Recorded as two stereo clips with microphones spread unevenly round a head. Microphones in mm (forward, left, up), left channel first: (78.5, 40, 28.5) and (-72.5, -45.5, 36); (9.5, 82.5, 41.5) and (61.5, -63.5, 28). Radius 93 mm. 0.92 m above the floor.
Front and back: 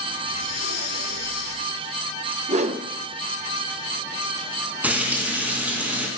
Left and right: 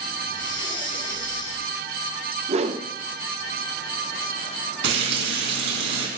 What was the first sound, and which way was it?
Breathing, 50° left.